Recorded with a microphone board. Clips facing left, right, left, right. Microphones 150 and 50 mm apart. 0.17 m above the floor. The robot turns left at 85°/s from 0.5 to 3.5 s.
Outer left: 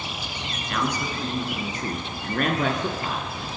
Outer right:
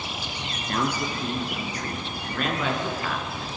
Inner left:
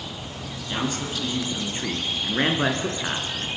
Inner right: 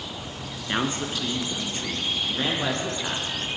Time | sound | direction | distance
0.7 | a man speaking | 120° right | 2 m